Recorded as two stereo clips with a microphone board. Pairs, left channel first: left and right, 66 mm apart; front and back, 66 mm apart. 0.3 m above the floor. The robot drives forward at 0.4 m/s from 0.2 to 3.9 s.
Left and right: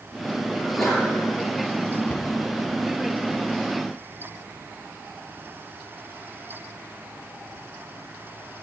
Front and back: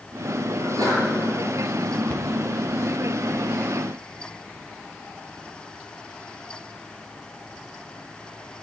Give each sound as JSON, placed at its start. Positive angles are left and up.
{"t": 0.6, "sound": "a sneeze", "azimuth_deg": 175, "distance_m": 4.5}
{"t": 2.1, "sound": "a cupboard door", "azimuth_deg": 65, "distance_m": 0.5}